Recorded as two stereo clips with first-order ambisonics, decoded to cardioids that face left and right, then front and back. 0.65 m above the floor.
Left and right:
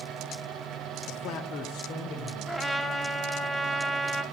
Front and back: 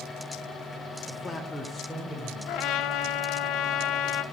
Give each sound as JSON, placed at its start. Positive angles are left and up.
{"t": 1.1, "sound": "a man speaking", "azimuth_deg": 60, "distance_m": 0.7}
{"t": 2.5, "sound": "a trumpet", "azimuth_deg": 5, "distance_m": 0.6}